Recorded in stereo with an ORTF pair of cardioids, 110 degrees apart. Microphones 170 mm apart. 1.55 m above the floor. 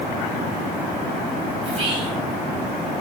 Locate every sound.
1.6 s whispering: 35° right, 0.7 m